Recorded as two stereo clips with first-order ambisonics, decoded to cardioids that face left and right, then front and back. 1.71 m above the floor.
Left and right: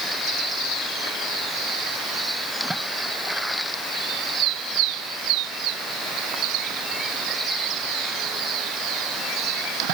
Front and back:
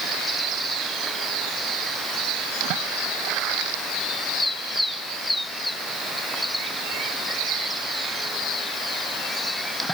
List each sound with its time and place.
Only background noise.